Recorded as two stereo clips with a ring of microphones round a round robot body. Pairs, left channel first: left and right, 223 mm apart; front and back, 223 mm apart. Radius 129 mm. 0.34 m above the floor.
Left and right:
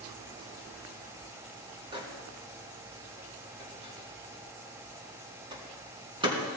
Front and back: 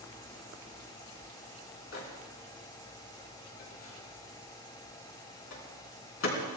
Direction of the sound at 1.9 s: 20° right.